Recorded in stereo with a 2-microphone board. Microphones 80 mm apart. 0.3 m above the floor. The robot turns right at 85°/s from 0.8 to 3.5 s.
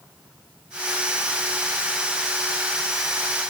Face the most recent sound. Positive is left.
No sound to turn to.